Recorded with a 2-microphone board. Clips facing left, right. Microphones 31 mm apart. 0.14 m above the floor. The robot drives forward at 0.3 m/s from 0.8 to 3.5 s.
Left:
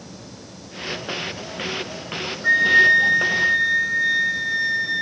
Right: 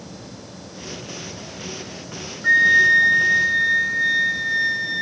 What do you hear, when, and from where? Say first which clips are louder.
2.4 s a flute: right 1 dB; centre (ahead or behind), 0.6 m